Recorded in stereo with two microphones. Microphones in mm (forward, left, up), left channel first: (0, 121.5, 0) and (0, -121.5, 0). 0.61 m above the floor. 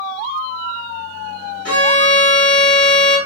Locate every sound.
1.6 s a violin: 80° right, 2 m